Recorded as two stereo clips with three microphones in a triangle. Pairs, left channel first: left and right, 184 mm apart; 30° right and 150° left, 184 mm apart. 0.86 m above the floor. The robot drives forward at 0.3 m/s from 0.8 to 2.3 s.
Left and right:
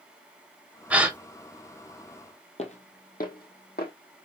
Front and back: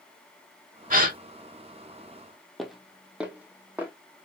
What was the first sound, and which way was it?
A gasp, 170° right.